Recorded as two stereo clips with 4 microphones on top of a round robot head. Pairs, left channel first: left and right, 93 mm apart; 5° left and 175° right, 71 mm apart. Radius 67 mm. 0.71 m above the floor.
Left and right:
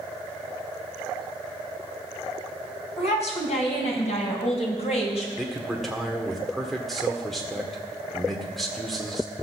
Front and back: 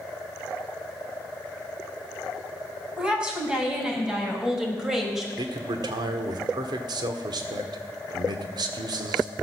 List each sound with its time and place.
3.0 s a woman speaking: 110° left, 5.5 m; by 5.3 s 95° left, 4 m
5.4 s a man speaking: straight behind, 1.7 m